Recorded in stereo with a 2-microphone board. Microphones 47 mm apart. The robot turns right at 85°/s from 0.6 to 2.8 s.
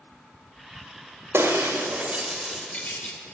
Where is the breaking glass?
65° right (ahead or behind), 1.9 m; by 3.2 s 35° left (ahead or behind), 1.9 m.